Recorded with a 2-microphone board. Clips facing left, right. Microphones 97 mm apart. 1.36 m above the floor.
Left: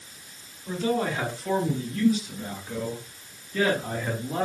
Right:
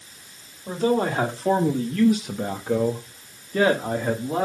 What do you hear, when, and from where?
0.7 s a man speaking: 35° right (ahead or behind), 2.5 m; by 4.5 s 25° right (ahead or behind), 2 m